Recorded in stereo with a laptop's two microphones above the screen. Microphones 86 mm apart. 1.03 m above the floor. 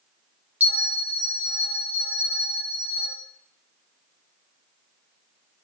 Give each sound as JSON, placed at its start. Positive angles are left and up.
{"t": 0.6, "sound": "a bell", "side_deg": -20, "distance_m": 1.1}